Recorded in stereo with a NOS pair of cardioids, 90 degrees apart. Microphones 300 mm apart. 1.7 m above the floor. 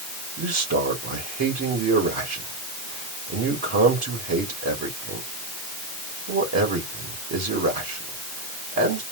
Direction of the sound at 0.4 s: 55° right.